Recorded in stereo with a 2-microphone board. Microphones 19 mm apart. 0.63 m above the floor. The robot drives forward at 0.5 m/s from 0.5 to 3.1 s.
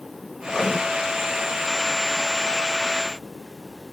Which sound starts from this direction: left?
Writing, at 0.4 s.